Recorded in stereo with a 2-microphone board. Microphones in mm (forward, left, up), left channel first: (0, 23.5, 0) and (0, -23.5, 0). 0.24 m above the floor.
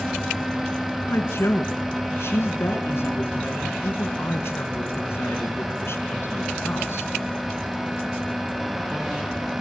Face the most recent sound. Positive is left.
turn(degrees=60)  # may be behind; listen again after turning